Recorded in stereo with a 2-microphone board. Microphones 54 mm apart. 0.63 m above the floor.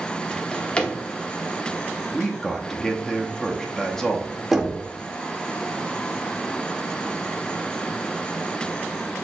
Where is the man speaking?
10° left (ahead or behind), 0.8 m.